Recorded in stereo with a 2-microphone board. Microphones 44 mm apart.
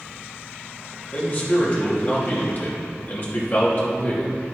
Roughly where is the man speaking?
Left.